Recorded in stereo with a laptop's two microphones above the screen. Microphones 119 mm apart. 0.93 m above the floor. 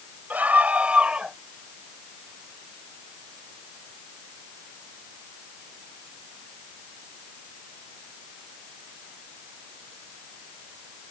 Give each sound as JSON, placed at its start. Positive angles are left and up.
{"t": 0.3, "sound": "a scream", "side_deg": -15}